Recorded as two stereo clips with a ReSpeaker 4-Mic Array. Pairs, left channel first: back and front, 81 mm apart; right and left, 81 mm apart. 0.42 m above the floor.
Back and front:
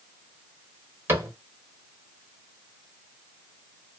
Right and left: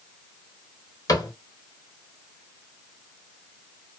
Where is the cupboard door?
60° right, 1.0 m.